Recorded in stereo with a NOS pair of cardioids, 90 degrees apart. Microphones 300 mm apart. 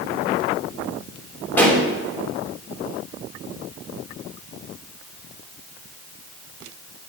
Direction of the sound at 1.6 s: 5° left.